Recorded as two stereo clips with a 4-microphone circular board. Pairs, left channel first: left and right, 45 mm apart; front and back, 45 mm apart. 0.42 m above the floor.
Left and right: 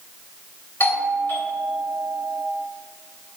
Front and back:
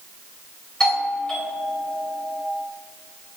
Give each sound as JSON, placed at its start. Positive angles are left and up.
{"t": 0.8, "sound": "a doorbell", "azimuth_deg": 70, "distance_m": 3.0}